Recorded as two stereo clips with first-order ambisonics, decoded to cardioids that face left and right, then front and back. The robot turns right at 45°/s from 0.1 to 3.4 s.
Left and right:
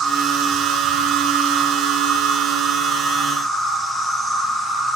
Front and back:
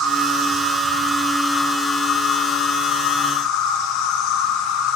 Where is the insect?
135° right, 2.5 m; by 5.0 s 10° left, 2.5 m.